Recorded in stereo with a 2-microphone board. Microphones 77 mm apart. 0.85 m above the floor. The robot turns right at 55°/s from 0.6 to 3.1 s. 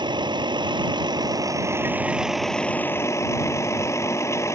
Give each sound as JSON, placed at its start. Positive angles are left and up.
{"t": 0.0, "sound": "a vehicle", "azimuth_deg": -100}